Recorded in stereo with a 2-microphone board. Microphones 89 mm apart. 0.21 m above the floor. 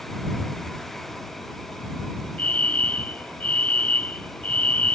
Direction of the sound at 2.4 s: 20° left (ahead or behind).